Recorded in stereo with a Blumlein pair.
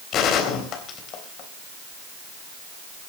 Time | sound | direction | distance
0.1 | a gunshot | 35° left | 3.5 m